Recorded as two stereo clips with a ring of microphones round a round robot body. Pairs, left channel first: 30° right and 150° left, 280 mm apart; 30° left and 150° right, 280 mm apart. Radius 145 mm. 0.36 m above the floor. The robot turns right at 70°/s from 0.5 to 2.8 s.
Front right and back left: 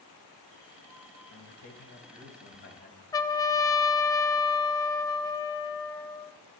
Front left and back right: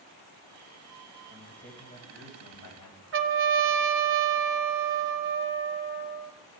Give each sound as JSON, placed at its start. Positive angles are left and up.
{"t": 1.3, "sound": "a man speaking", "azimuth_deg": -75, "distance_m": 2.0}
{"t": 3.1, "sound": "a trumpet", "azimuth_deg": -105, "distance_m": 0.5}